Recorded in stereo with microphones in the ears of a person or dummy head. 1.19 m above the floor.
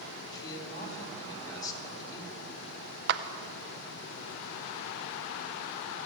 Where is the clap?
55° right (ahead or behind), 0.5 m.